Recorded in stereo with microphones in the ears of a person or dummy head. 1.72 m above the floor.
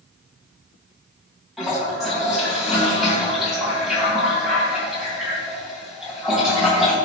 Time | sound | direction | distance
1.6 | a toilet flushing | centre (ahead or behind) | 2.5 m